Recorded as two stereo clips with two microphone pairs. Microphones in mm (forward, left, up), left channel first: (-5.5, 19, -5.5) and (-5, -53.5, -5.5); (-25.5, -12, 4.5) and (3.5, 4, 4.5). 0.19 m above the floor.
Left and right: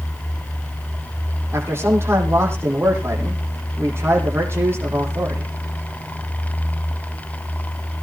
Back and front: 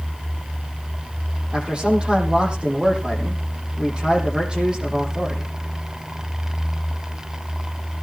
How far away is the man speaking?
About 8 m.